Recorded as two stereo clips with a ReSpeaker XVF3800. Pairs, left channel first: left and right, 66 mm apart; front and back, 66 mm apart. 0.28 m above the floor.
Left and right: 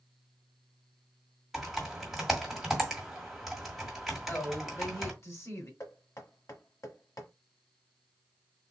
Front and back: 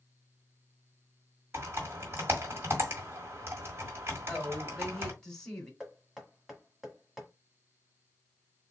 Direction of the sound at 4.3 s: 80° left.